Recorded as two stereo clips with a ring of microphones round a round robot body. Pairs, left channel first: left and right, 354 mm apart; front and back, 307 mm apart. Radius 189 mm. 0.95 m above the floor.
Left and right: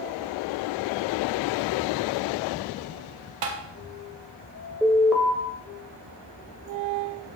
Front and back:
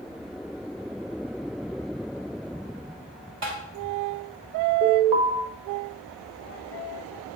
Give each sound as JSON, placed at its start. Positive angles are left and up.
{"t": 3.4, "sound": "tapping", "azimuth_deg": -120, "distance_m": 1.1}
{"t": 4.8, "sound": "an alarm", "azimuth_deg": 180, "distance_m": 1.5}